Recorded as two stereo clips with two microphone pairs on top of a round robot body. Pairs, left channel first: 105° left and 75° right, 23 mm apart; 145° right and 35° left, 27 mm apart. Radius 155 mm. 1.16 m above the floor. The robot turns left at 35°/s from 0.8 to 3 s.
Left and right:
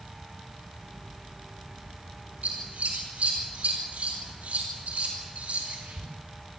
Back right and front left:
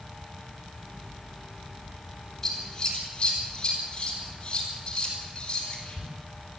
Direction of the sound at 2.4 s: 70° right.